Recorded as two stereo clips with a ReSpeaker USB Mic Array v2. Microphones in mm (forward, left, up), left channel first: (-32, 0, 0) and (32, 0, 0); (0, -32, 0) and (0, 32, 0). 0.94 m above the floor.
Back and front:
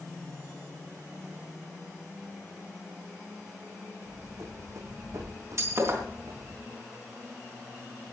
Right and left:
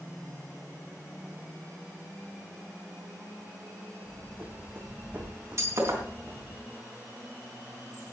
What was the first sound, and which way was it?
Running footsteps, 35° left.